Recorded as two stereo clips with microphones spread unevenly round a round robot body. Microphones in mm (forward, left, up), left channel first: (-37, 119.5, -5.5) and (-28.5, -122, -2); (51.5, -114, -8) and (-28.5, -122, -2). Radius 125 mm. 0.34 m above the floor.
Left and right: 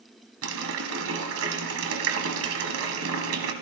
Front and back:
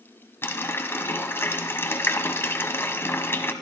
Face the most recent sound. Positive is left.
turn(degrees=-55)